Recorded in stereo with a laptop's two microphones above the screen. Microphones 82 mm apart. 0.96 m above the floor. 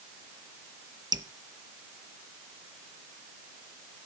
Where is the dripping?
55° right (ahead or behind), 0.7 m.